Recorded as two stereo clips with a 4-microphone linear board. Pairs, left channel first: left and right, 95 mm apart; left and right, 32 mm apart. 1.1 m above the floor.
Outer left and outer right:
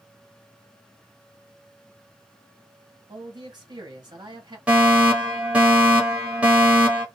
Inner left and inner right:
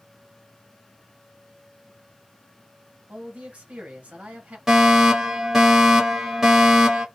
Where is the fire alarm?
10° right (ahead or behind), 1.3 m.